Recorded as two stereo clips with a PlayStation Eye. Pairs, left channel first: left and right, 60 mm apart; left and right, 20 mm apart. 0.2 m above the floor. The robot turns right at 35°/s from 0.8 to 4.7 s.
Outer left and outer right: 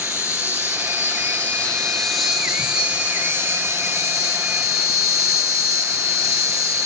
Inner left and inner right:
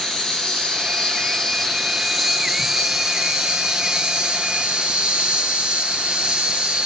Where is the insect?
130° left, 1.4 m; by 6.9 s 95° right, 1.4 m.